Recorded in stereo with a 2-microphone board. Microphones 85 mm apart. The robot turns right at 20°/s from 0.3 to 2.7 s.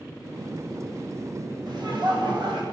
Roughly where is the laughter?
Right.